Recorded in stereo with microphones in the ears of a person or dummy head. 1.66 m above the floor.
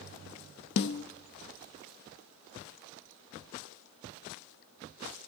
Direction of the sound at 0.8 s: 65° left (ahead or behind).